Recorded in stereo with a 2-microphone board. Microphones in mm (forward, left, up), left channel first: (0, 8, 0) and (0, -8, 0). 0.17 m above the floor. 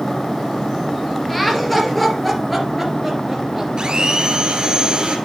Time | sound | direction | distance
1.3 | laughter | 10° left (ahead or behind) | 3.5 m
3.8 | a blender | 45° right (ahead or behind) | 1.5 m